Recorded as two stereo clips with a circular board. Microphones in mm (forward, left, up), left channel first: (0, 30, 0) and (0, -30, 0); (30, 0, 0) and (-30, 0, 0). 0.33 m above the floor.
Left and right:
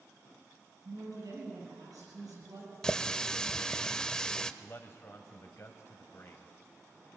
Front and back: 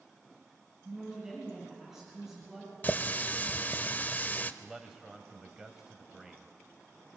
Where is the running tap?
25° left, 0.6 m.